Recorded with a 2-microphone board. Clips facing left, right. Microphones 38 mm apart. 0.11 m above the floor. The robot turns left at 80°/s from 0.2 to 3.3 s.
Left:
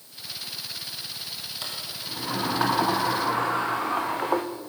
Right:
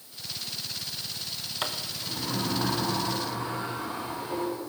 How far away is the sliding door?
About 3 m.